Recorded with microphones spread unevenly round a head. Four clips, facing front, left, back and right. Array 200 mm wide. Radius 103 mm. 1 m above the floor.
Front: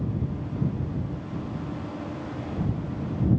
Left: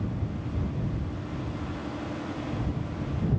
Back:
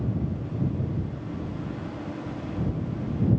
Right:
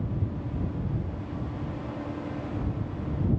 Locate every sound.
Only background noise.